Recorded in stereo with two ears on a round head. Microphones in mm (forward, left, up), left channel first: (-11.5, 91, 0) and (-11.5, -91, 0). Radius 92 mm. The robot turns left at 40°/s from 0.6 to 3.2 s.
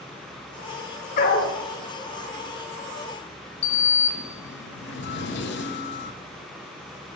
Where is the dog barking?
40° left (ahead or behind), 1.4 m; by 1.5 s 45° left (ahead or behind), 1.4 m.